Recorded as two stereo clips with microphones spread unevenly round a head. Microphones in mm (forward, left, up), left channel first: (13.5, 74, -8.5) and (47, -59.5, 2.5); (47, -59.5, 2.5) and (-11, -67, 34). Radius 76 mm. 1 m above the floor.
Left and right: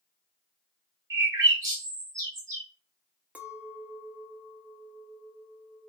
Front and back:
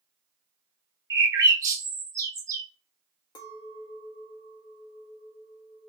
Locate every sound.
1.1 s a bird: 135° right, 0.7 m
3.4 s a clink: 5° left, 0.7 m